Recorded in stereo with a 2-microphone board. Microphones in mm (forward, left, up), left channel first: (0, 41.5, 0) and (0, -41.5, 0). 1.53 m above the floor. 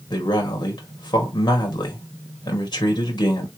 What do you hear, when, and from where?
0.1 s a man speaking: 55° left (ahead or behind), 2 m